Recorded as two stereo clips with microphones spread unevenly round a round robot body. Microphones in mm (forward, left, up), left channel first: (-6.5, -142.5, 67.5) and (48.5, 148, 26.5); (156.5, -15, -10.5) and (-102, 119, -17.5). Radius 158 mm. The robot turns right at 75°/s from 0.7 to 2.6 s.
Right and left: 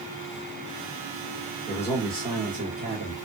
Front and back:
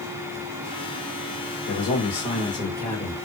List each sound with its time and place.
1.7 s a man speaking: 25° right, 1.3 m; by 3.1 s 45° left, 1.3 m